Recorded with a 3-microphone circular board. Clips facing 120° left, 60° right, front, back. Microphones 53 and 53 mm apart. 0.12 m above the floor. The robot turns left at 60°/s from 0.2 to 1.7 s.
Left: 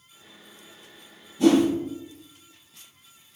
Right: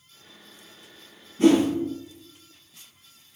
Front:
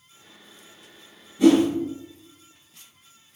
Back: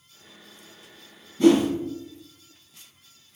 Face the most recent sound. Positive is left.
turn(degrees=-95)